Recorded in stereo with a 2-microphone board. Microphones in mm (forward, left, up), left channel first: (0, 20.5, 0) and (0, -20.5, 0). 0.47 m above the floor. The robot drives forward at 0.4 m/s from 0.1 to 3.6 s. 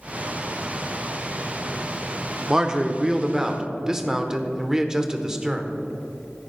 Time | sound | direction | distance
2.5 | a man speaking | 20° right (ahead or behind) | 0.8 m